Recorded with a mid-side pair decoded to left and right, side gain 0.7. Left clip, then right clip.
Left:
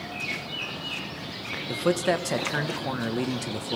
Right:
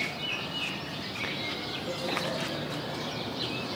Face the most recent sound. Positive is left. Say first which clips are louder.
# left 12 dB
turn(degrees=70)